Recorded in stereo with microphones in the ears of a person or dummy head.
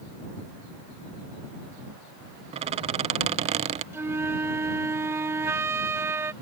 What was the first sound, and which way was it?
A squeak, 30° right (ahead or behind).